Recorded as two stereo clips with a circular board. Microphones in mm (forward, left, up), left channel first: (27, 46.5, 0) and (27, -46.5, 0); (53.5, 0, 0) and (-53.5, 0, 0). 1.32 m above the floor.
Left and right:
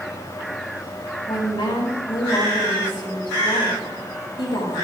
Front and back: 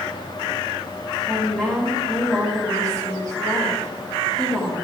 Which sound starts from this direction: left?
A woman speaking, at 1.3 s.